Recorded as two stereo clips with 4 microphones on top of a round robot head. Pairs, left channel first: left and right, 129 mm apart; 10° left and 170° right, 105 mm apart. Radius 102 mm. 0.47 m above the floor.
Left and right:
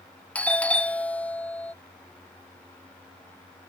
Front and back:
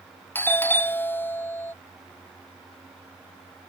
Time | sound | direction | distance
0.3 | a doorbell | 30° left | ?